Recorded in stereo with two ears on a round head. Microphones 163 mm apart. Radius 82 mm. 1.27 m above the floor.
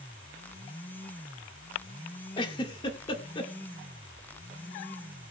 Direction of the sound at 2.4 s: 25° left (ahead or behind).